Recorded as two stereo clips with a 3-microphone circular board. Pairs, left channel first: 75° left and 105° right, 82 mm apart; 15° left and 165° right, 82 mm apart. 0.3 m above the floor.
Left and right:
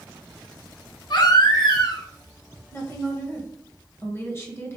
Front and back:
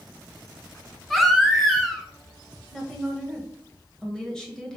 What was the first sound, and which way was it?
A baby crying, 105° left.